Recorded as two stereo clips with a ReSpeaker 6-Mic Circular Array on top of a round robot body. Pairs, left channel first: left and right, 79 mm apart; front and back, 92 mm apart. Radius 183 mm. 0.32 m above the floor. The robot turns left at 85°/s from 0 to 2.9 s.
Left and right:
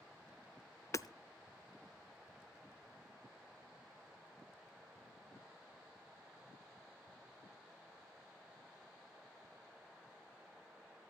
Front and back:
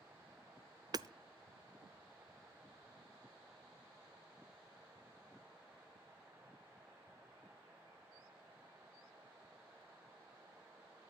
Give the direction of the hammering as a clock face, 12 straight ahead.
7 o'clock.